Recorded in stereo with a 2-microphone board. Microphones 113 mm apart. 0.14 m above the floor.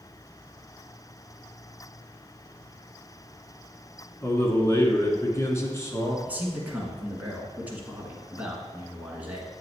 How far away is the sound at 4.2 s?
About 1.2 m.